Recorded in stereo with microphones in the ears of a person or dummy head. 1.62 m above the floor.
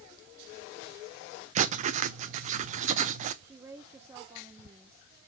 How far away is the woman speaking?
About 1.1 m.